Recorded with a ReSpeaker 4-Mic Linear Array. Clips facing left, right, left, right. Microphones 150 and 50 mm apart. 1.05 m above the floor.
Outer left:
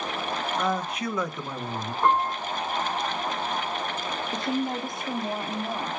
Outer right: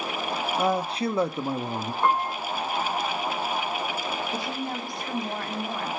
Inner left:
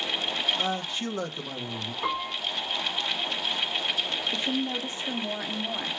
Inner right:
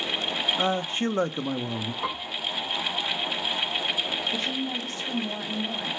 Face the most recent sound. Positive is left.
turn(degrees=20)  # may be behind; listen again after turning